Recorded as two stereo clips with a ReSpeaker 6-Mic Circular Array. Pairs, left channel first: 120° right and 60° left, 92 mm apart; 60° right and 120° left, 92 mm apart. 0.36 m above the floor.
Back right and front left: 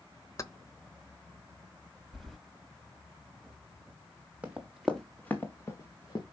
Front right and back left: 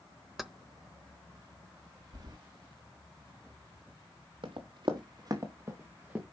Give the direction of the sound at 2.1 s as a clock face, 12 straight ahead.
7 o'clock.